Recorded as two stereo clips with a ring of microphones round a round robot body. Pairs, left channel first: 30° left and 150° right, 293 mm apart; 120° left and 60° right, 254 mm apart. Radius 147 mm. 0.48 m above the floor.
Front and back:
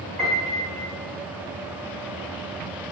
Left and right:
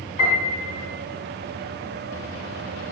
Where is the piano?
125° left, 3 m.